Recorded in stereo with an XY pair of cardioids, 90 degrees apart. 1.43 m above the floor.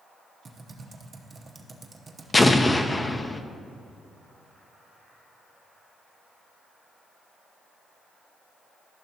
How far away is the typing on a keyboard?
About 0.9 m.